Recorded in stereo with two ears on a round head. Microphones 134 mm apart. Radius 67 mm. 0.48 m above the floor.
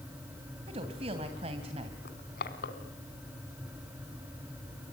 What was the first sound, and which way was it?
A woman speaking, 40° right (ahead or behind).